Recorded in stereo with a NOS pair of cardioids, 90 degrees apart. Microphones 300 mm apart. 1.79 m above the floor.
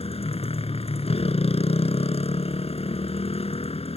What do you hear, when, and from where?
0.0 s a motorcycle: 20° left